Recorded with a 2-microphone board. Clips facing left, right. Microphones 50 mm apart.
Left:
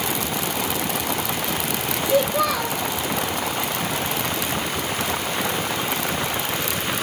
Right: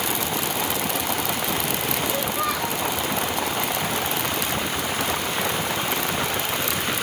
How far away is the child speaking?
About 3.5 m.